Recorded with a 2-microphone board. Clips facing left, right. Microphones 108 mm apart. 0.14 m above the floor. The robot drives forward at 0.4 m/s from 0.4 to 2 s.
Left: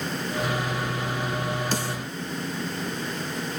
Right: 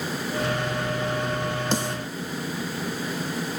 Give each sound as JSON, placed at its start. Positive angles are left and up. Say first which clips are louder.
{"t": 1.7, "sound": "a snare drum", "louder": "right 2 dB", "side_deg": -25, "distance_m": 0.9}